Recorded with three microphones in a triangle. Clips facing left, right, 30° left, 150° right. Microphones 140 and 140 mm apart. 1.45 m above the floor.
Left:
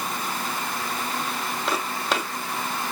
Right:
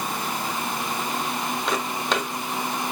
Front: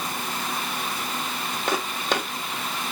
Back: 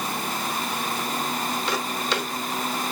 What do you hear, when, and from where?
1.7 s footsteps: 5° left, 3 m